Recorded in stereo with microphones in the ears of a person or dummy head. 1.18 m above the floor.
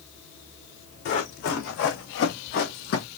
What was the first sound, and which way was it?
Running footsteps, 50° left (ahead or behind).